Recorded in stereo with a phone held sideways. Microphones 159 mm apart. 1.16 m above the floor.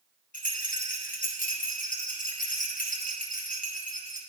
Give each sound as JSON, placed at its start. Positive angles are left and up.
{"t": 0.3, "sound": "a rattle", "side_deg": 60, "distance_m": 1.4}